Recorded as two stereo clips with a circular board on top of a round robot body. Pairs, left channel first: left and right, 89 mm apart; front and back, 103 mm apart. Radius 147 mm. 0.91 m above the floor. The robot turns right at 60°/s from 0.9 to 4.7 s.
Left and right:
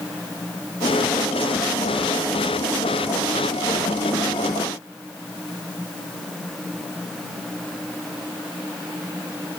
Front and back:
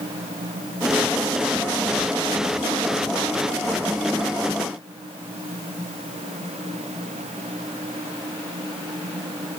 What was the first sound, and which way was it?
Only background noise.